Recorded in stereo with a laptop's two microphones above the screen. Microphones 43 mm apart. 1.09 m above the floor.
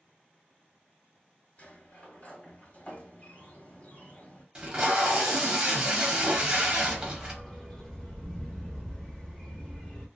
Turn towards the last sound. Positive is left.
turn(degrees=15)  # may be behind; listen again after turning